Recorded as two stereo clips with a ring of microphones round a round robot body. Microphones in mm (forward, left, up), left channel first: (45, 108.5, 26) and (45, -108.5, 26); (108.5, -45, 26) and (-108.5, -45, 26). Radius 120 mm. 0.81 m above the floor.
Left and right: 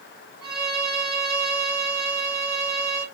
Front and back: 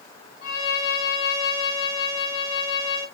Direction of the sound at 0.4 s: 5° right.